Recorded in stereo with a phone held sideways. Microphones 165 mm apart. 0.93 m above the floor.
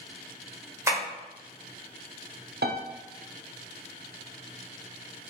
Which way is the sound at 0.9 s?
20° right (ahead or behind).